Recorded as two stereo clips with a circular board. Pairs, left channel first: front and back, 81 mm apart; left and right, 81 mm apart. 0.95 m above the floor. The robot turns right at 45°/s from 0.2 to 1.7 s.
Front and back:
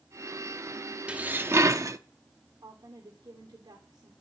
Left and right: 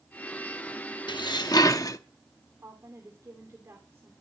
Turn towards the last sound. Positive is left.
turn(degrees=-150)